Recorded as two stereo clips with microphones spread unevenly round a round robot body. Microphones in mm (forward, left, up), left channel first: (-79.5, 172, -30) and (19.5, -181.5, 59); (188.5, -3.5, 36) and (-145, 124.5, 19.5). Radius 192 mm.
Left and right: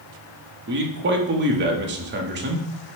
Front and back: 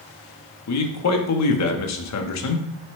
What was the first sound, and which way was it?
A man speaking, 10° right.